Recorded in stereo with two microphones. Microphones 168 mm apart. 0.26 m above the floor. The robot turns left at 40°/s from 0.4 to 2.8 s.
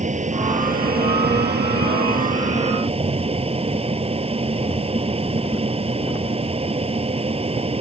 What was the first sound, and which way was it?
An aircraft, 45° right.